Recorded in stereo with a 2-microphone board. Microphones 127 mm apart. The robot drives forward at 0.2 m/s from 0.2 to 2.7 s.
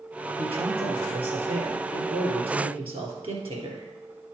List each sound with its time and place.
0.4 s a man speaking: 50° right (ahead or behind), 2.5 m; by 3.9 s 45° right (ahead or behind), 2.5 m